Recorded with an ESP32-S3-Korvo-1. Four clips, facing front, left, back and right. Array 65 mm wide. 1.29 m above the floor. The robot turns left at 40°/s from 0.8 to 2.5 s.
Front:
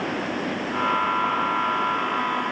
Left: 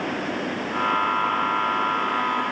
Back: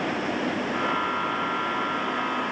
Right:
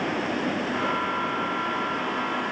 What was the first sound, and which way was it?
Only background noise.